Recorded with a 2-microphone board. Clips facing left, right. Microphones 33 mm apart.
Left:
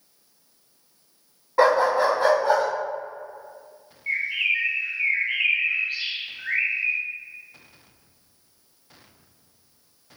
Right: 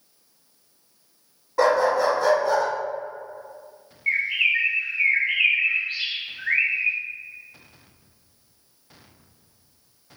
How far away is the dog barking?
About 1.7 m.